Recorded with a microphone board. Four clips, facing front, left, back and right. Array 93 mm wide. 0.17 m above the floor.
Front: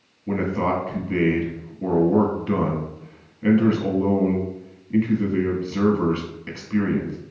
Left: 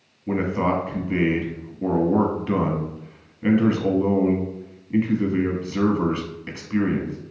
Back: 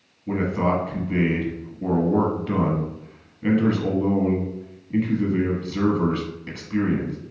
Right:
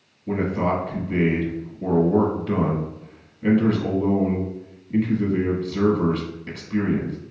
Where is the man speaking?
65° left, 1.0 m.